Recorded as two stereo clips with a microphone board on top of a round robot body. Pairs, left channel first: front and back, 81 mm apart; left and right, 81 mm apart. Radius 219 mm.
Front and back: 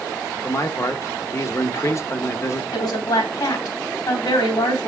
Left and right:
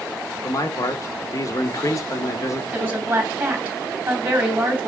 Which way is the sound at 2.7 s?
25° right.